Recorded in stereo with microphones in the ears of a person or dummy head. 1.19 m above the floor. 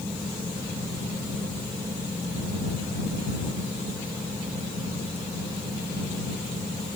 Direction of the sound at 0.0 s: 15° right (ahead or behind).